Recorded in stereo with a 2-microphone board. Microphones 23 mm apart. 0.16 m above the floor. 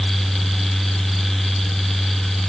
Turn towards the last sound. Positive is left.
No sound to turn to.